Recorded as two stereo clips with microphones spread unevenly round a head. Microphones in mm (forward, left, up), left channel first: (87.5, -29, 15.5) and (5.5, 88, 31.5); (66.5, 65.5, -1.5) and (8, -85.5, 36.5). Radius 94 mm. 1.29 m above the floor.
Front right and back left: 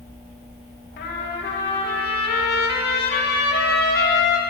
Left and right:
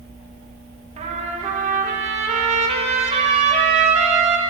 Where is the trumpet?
55° right, 1.5 m.